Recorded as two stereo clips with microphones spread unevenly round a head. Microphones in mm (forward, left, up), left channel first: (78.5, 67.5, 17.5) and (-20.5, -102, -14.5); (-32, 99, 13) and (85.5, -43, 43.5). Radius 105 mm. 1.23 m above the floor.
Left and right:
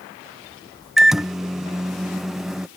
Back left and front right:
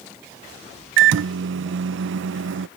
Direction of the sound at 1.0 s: 30° right.